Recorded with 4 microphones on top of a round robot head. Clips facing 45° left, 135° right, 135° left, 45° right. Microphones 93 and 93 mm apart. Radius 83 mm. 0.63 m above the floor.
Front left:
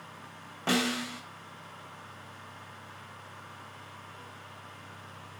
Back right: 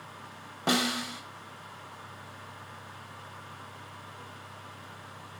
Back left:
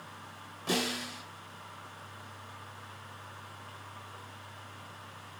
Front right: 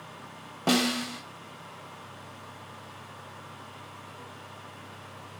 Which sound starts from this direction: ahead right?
A snare drum, at 0.7 s.